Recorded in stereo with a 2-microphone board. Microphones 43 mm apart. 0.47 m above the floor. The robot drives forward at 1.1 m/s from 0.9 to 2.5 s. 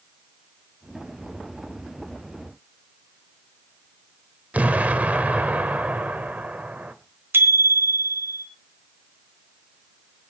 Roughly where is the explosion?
Right.